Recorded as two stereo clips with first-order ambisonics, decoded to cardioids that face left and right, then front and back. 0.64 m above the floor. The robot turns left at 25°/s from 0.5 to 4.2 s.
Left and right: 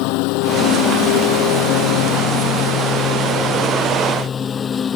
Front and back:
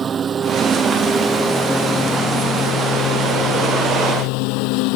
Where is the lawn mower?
115° left; by 5.0 s 20° left.